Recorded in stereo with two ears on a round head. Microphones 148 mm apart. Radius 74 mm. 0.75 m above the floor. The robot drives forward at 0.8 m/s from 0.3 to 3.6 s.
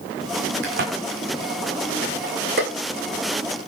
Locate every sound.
0.6 s a crack: 70° right (ahead or behind), 9.5 m; by 2.7 s 60° right (ahead or behind), 10.5 m